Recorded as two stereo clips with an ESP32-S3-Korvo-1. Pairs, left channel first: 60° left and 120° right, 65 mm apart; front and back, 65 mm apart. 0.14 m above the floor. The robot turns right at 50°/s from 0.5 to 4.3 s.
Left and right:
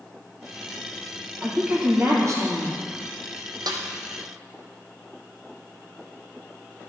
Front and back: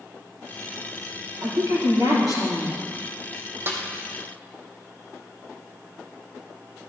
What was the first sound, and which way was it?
A woman speaking, 160° left.